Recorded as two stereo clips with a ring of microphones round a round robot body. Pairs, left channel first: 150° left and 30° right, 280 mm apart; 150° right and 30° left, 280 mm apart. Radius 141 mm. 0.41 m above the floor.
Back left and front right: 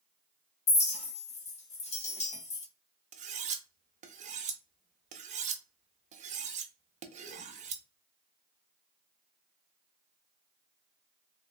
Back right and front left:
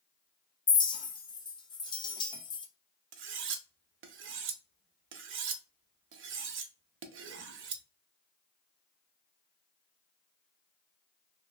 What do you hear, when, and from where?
0.7 s a clink: 165° left, 0.7 m
3.1 s cutlery clinking: 20° left, 0.5 m